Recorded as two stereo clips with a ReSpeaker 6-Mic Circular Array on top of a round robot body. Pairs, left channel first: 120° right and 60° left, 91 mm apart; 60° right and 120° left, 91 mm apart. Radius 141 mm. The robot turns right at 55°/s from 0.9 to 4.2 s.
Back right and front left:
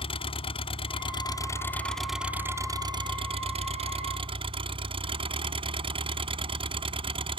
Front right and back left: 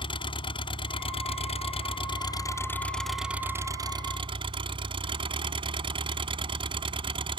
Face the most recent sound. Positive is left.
turn(degrees=90)